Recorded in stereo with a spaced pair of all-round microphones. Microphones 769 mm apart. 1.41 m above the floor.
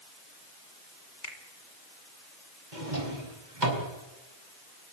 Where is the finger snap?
85° left, 4 m.